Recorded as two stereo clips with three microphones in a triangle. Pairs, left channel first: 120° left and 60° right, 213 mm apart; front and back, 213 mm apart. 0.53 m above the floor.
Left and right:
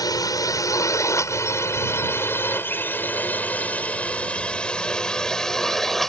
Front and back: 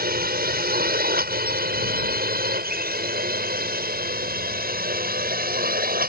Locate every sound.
0.0 s a drone: 175° right; by 6.1 s 150° right